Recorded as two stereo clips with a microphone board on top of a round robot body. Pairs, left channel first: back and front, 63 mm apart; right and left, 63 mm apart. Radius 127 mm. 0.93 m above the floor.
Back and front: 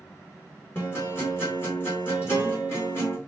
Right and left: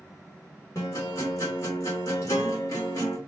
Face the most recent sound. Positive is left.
turn(degrees=-130)